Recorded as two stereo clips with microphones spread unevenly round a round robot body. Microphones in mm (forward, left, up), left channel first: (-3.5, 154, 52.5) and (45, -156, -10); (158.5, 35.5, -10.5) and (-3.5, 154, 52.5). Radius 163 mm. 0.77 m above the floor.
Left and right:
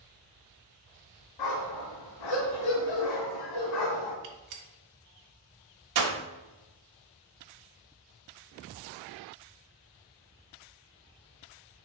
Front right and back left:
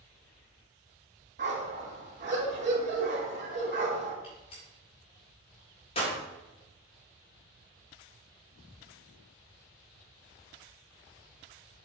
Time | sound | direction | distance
1.4 | a dog barking | 115° left | 2 m
4.2 | a gunshot | 100° right | 1.5 m